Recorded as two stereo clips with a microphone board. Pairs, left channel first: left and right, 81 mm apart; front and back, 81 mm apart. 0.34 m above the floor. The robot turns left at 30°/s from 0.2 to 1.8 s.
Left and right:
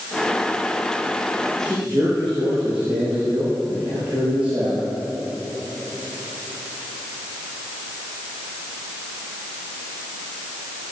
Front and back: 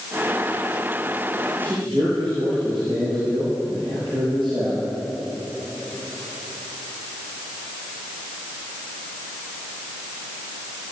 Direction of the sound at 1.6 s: 160° right.